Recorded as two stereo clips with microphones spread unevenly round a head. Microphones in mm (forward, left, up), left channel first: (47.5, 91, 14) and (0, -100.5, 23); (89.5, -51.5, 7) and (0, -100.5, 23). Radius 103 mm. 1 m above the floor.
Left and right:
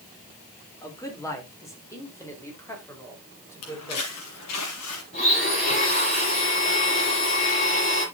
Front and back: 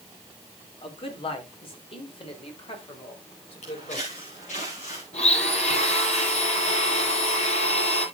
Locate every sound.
0.8 s a man speaking: straight ahead, 3.5 m
3.6 s footsteps: 85° left, 3 m; by 5.0 s 80° left, 4 m
5.1 s a blender: 15° left, 9 m